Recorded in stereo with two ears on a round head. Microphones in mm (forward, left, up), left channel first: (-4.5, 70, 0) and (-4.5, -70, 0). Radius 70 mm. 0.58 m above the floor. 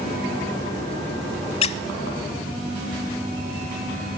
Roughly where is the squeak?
Left.